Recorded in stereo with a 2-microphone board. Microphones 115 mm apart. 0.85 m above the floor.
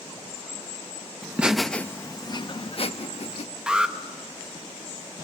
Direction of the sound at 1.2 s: 20° right (ahead or behind).